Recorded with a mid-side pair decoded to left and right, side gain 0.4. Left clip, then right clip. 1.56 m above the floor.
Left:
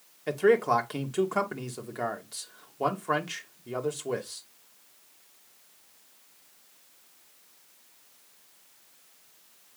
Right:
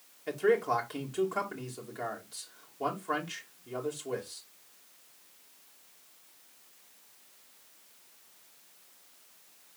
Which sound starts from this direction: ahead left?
A man speaking, at 0.3 s.